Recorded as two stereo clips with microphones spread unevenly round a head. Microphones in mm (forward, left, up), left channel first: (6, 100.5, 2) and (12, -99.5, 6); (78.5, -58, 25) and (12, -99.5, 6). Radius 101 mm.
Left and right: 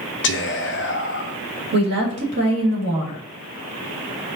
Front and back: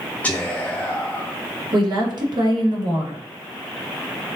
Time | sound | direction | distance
0.2 | whispering | 115° left | 0.5 m
1.7 | a woman speaking | 125° right | 1.7 m